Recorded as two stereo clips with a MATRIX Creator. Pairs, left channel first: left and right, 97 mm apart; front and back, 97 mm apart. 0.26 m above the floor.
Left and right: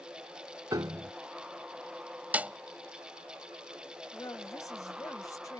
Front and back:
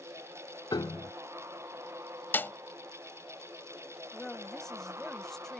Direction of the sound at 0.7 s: 40° right.